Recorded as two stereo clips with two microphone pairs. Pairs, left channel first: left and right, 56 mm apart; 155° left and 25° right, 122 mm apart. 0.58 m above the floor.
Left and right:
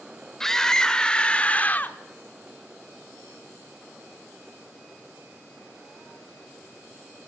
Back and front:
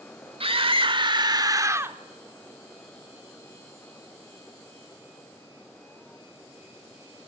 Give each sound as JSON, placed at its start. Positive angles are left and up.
{"t": 0.4, "sound": "a scream", "azimuth_deg": 10, "distance_m": 1.7}